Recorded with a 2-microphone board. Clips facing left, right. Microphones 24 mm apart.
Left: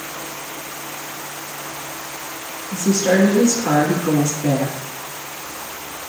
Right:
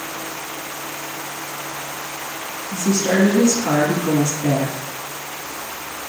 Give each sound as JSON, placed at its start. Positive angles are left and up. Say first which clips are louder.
{"t": 2.7, "sound": "a woman speaking", "louder": "left 2 dB", "side_deg": -5, "distance_m": 2.0}